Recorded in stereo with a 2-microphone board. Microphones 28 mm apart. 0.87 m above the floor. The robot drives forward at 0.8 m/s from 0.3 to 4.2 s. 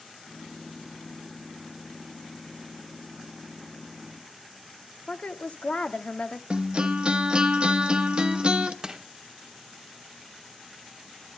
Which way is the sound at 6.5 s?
40° right (ahead or behind).